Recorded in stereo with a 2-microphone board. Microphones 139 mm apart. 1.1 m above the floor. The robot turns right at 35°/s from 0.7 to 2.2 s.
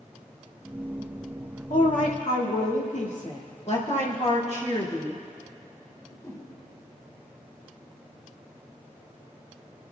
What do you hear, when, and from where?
1.7 s a woman speaking: 70° left (ahead or behind), 1.9 m; by 3.5 s 55° left (ahead or behind), 1.9 m
3.7 s a woman speaking: 55° left (ahead or behind), 2.5 m
5.9 s a whoosh: 25° left (ahead or behind), 3 m